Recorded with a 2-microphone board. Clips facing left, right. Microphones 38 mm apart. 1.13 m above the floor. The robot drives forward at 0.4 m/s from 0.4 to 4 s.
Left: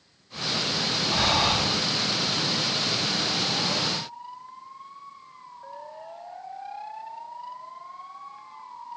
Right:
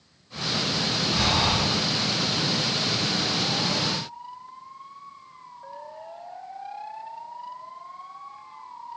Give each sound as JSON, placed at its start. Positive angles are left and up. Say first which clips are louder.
{"t": 1.1, "sound": "breathing", "louder": "left 1 dB", "side_deg": 50, "distance_m": 1.4}